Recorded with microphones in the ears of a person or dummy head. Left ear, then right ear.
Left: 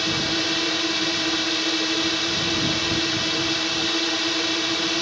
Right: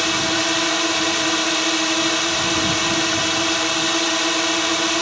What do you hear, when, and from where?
0.0 s a drone: 45° right (ahead or behind)